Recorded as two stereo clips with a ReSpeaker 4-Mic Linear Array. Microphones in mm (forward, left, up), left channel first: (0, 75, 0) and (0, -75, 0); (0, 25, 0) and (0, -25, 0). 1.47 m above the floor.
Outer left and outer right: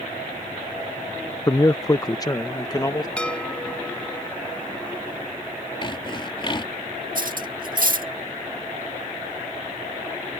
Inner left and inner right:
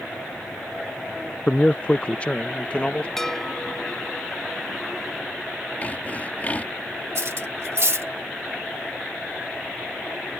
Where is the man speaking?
25° left (ahead or behind).